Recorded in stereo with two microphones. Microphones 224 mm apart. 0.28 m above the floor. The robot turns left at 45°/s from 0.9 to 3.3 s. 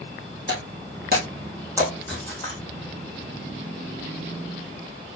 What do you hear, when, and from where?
0.5 s breaking glass: 55° right (ahead or behind), 5 m; by 2.6 s 20° left (ahead or behind), 5 m